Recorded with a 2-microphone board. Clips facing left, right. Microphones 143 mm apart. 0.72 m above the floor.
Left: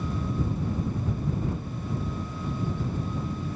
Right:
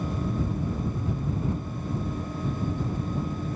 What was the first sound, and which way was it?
Only background noise.